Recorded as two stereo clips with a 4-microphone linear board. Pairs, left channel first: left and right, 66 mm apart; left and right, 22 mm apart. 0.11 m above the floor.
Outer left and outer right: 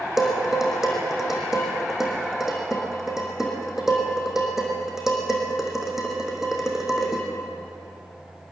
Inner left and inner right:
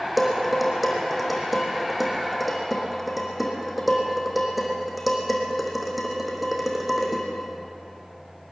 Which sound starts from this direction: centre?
Dishes clattering, at 0.2 s.